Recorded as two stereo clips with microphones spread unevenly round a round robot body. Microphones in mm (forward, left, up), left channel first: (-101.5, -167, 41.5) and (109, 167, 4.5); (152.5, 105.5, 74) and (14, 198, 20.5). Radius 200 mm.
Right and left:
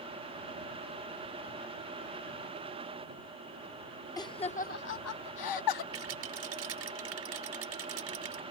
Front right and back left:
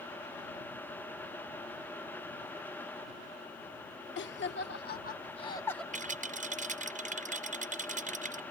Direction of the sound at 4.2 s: 40° right.